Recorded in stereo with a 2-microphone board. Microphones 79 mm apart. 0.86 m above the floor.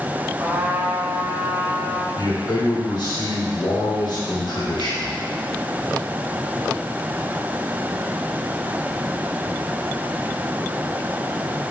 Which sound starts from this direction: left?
A man speaking, at 2.1 s.